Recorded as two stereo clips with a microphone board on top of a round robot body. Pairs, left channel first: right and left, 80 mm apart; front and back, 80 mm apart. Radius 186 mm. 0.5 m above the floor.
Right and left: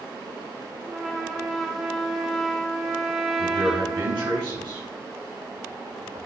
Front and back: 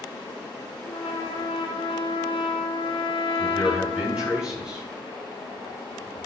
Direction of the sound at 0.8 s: 5° left.